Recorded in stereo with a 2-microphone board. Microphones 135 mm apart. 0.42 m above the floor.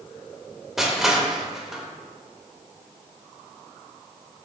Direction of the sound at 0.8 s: 5° right (ahead or behind).